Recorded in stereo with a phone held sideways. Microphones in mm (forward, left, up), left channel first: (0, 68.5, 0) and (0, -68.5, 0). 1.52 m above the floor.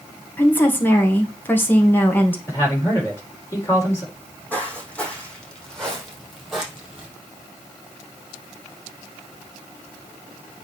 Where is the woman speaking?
15° left (ahead or behind), 1.9 m.